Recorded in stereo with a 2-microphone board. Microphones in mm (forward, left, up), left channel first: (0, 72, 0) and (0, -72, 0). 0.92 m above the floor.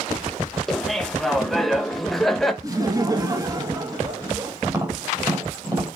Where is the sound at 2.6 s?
25° right (ahead or behind), 1.4 m.